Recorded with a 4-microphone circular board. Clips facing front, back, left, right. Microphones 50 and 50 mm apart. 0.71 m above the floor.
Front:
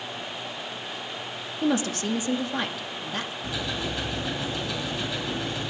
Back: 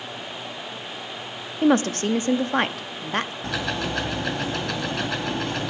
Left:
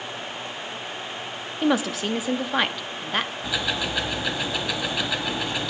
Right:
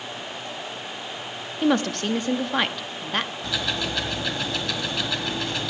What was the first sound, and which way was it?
A woman speaking, 175° left.